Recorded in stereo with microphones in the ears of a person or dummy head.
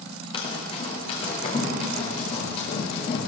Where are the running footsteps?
30° left (ahead or behind), 4 m; by 3.2 s 35° left (ahead or behind), 7.5 m.